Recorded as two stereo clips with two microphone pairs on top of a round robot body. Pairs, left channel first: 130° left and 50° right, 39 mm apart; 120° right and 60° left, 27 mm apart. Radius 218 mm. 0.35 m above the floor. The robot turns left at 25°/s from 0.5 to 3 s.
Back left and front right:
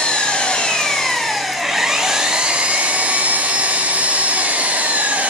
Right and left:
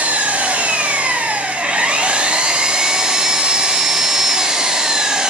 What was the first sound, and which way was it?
An engine running, 65° left.